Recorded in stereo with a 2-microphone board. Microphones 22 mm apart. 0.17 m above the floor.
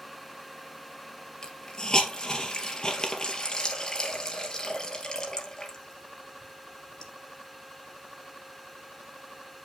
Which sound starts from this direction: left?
A hiss, at 1.4 s.